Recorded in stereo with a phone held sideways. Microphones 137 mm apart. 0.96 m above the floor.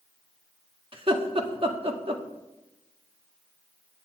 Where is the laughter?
45° right (ahead or behind), 1.7 m.